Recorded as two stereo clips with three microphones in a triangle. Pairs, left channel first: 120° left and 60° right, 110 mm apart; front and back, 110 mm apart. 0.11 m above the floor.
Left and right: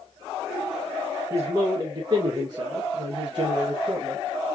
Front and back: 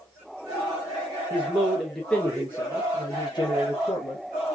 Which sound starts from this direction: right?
A man speaking, at 1.3 s.